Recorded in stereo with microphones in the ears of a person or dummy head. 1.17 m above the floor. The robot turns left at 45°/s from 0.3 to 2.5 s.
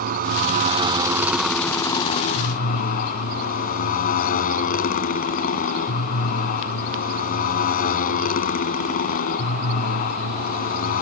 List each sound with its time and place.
0.0 s a motorcycle: 130° right; by 11.0 s 130° left